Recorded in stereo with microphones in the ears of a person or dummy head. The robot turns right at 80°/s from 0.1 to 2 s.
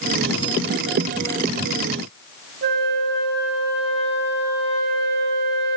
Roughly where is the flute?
Right.